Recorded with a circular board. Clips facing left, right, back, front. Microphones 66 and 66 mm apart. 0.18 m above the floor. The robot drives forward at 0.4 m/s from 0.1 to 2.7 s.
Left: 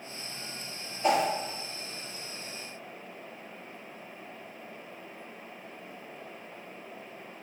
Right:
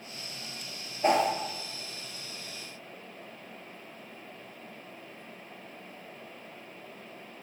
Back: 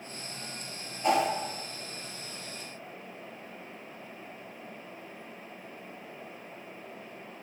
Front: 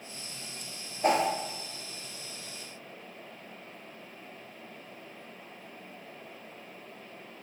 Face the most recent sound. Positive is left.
turn(degrees=-90)